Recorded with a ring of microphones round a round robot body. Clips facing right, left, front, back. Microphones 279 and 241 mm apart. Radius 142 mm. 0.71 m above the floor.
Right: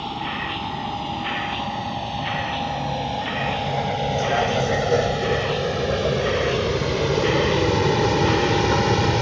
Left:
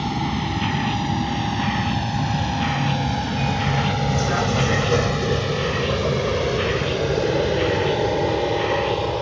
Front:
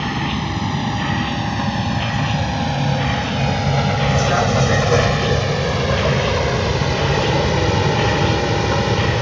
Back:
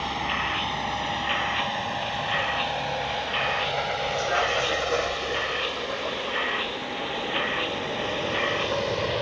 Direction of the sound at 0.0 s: 40° left.